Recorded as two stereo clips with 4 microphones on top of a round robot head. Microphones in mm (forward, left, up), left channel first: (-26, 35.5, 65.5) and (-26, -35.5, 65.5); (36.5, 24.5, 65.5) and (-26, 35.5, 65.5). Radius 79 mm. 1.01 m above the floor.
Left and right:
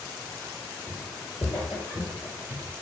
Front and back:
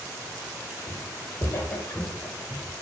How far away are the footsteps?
About 1.1 m.